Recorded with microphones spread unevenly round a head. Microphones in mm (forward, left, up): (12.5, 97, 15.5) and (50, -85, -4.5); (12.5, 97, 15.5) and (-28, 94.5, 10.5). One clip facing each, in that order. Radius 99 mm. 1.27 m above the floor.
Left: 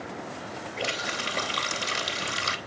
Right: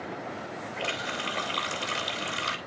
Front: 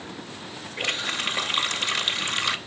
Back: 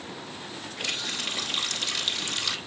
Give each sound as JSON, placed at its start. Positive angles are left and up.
{"t": 0.8, "sound": "a running tap", "azimuth_deg": 60, "distance_m": 2.5}